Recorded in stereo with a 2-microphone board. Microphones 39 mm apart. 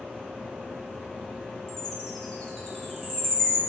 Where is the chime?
10° left (ahead or behind), 1.3 m.